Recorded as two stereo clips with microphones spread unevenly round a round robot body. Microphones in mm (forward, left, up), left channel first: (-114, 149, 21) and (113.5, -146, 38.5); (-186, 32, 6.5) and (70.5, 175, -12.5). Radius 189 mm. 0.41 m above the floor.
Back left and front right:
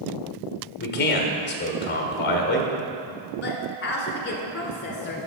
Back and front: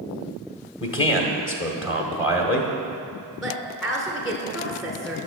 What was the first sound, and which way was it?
A man speaking, 175° left.